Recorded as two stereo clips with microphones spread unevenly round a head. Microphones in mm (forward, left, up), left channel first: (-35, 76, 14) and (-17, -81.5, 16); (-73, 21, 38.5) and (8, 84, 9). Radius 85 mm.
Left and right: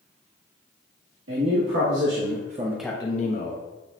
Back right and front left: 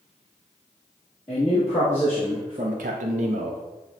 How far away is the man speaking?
About 1.7 m.